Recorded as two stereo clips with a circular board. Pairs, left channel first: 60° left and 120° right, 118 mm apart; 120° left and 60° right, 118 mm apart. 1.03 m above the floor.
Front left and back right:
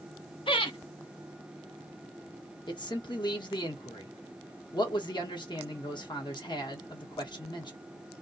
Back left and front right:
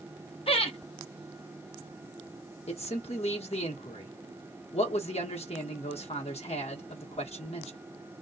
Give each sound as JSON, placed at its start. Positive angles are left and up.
{"t": 0.5, "sound": "laughter", "azimuth_deg": 95, "distance_m": 0.9}
{"t": 2.7, "sound": "a man speaking", "azimuth_deg": 105, "distance_m": 1.1}